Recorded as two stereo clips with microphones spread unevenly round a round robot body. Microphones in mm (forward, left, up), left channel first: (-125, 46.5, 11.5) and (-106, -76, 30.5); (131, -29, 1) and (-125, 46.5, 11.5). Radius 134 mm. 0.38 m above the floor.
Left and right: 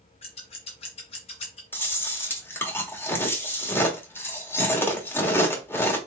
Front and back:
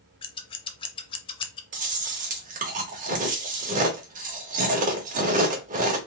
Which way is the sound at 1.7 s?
130° left.